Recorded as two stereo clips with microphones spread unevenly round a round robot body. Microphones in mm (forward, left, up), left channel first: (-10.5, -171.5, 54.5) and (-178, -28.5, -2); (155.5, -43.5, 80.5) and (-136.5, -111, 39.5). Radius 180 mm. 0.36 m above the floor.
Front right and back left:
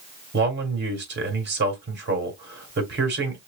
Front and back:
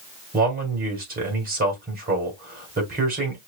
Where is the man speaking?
140° left, 1.9 m.